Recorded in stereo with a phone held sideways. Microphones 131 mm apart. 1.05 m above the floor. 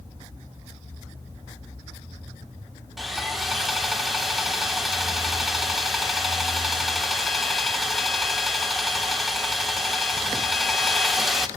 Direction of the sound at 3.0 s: Centre (ahead or behind).